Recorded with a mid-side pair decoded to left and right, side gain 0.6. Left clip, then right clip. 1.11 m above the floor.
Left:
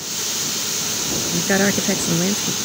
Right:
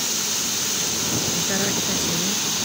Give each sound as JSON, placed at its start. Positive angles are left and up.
{"t": 1.3, "sound": "a woman speaking", "azimuth_deg": 45}